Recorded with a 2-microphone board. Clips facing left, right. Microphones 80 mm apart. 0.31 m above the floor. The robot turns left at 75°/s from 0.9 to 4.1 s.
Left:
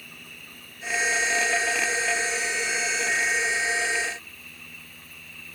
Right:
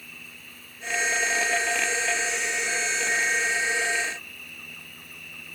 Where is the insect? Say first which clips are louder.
Even; 125° left, 1.6 m; by 5.5 s 115° right, 1.6 m.